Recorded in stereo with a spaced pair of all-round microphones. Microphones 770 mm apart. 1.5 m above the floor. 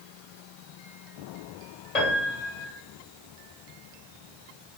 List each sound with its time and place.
1.9 s a piano: 55° left (ahead or behind), 1.3 m